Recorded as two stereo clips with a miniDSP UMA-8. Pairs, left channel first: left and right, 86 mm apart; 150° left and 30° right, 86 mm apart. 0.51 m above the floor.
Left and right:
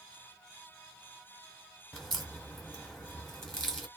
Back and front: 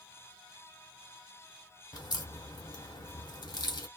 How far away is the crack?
About 0.9 m.